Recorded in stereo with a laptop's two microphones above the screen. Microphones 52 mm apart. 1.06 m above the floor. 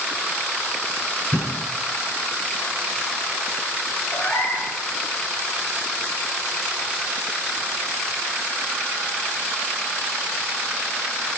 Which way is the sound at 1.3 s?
35° left (ahead or behind).